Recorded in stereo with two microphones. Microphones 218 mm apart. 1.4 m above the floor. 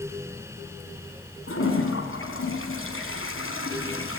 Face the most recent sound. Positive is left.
turn(degrees=75)  # may be behind; listen again after turning